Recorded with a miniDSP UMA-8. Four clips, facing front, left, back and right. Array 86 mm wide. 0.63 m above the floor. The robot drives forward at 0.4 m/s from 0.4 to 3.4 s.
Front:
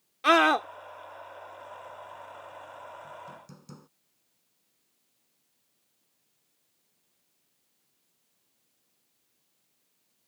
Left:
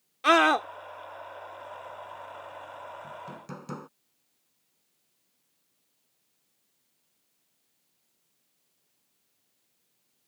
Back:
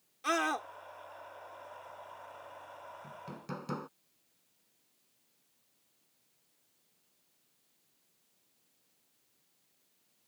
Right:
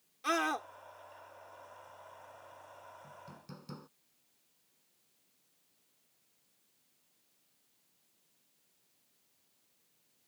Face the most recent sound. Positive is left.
turn(degrees=135)